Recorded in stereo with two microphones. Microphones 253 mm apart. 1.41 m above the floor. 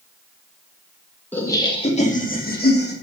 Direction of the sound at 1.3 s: 5° left (ahead or behind).